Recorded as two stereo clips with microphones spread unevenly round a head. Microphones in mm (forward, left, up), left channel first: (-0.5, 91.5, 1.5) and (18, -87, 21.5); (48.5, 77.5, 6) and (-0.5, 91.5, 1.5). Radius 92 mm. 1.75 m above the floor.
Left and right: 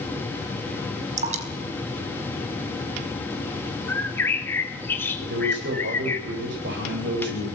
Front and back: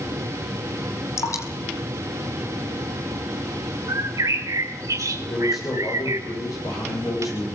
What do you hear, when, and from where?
1.2 s dripping: 35° right, 3.5 m
3.9 s a bird: straight behind, 2.5 m
5.2 s a man speaking: 55° right, 10 m